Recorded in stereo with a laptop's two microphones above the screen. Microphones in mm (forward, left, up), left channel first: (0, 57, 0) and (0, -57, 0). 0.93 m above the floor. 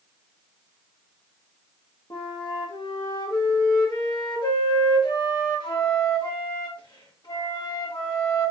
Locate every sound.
2.1 s a flute: 40° left (ahead or behind), 1.2 m